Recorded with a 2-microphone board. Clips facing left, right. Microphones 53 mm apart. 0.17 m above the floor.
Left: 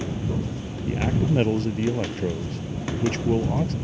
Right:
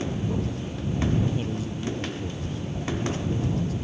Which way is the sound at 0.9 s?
70° left (ahead or behind).